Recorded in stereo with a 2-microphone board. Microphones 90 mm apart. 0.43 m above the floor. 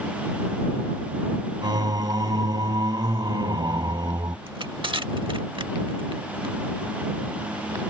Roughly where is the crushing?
Right.